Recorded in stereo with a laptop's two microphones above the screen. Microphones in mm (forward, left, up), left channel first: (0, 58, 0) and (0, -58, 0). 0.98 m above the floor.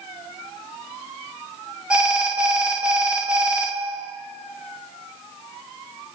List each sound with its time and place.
1.9 s an alarm: 10° right (ahead or behind), 1.5 m